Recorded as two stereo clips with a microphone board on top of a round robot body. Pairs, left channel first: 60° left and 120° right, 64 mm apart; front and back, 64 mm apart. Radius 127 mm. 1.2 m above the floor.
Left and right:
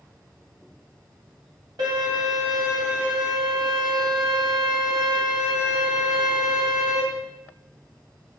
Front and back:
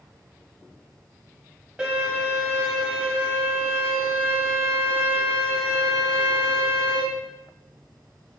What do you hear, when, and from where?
1.8 s a violin: 100° right, 1.7 m